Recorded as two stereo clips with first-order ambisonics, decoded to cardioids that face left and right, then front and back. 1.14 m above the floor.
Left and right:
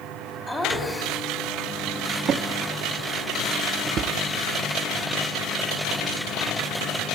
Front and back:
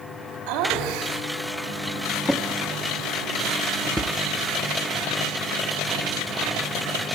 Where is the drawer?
85° right, 0.6 m.